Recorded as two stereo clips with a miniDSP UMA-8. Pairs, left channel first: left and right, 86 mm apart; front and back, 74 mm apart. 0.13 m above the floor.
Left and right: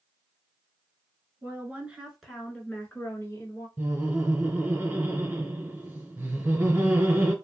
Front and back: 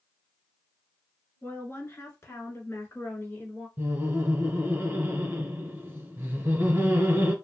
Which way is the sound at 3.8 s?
140° right.